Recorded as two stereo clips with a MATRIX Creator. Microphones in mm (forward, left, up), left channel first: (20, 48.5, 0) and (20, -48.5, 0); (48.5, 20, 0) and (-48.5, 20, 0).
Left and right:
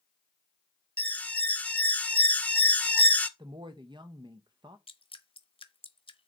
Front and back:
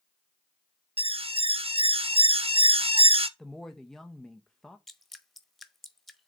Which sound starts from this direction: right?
A woman speaking, at 3.4 s.